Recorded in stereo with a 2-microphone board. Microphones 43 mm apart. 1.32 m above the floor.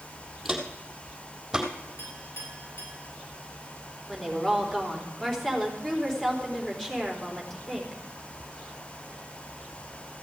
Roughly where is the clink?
Left.